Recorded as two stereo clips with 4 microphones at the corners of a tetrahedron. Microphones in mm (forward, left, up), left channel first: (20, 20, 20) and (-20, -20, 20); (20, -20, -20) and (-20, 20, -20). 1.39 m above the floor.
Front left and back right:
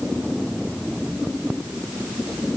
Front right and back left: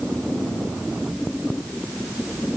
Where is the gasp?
No gasp in this recording.